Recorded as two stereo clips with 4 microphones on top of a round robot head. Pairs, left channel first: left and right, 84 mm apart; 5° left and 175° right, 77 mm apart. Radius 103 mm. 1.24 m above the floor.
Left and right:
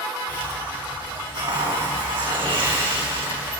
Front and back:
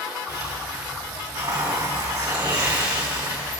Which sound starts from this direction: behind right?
A hiss, at 0.3 s.